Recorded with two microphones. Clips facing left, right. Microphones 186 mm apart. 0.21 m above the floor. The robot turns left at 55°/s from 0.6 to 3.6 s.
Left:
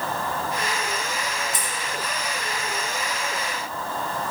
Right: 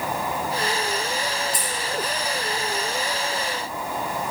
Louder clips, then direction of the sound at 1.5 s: Right 2 dB; 25° left (ahead or behind).